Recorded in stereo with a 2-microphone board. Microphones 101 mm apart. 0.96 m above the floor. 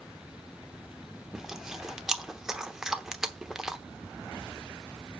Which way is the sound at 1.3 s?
5° right (ahead or behind).